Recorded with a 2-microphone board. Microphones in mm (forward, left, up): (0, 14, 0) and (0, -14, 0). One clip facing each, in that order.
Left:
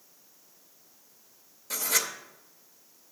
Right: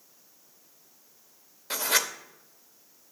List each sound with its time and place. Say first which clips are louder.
1.7 s writing: right 3 dB; 40° right (ahead or behind), 0.6 m